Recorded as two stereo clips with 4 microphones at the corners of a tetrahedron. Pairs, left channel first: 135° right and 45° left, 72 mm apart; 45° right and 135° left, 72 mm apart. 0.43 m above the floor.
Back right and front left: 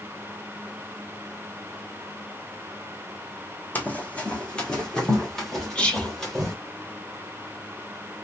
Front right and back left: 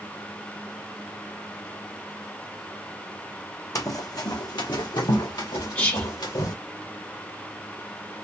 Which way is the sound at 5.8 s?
80° right.